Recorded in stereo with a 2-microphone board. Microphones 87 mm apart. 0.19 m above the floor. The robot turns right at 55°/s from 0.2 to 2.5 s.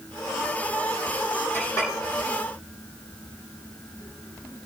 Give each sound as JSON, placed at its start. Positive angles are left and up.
{"t": 1.5, "sound": "a clink", "side_deg": 25, "distance_m": 6.5}